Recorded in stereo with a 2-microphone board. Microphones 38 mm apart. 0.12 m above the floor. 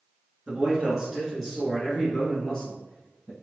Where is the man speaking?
30° right (ahead or behind), 1.3 m; by 3.3 s 10° left (ahead or behind), 2.5 m.